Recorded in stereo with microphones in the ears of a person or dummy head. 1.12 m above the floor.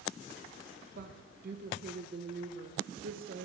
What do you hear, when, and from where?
0.9 s a woman speaking: 45° right (ahead or behind), 0.7 m